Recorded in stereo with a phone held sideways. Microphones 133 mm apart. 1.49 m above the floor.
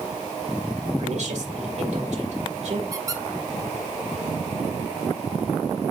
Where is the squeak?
25° right (ahead or behind), 0.9 m.